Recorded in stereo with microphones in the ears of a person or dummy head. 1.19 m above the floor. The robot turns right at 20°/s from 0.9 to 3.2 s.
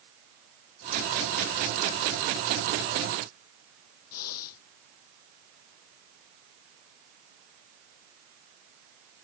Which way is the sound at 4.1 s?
85° left.